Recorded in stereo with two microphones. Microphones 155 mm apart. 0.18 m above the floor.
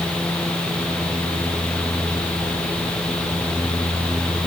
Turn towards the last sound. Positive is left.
No sound to turn to.